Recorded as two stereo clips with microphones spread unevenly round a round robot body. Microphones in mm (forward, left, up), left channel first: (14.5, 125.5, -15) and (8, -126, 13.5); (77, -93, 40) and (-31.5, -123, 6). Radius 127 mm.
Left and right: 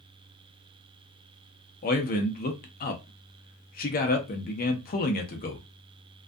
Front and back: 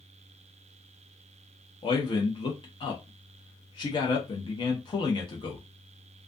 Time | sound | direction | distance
1.8 | a man speaking | 75° left | 0.5 m